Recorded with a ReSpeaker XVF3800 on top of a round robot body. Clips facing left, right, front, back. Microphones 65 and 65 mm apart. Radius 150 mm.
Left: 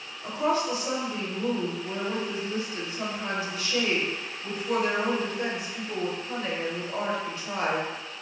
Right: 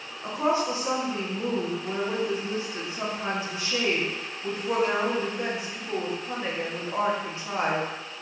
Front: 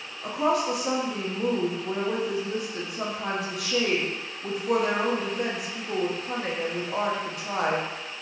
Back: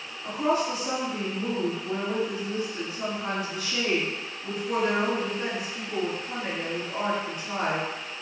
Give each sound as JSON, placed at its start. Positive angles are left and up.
{"t": 0.2, "sound": "a woman speaking", "azimuth_deg": -25, "distance_m": 1.1}